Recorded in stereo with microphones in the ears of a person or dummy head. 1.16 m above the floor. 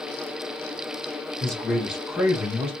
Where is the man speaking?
Centre (ahead or behind), 2.5 m; by 2.7 s 30° right (ahead or behind), 1.0 m.